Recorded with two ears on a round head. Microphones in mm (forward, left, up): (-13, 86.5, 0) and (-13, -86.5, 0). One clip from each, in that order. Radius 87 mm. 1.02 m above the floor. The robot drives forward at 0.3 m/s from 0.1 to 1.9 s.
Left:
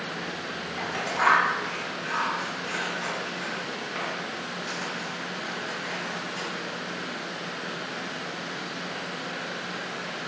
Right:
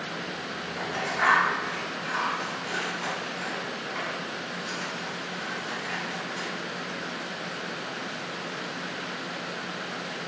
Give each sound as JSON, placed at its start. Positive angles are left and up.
{"t": 0.8, "sound": "scissors", "side_deg": 0, "distance_m": 0.7}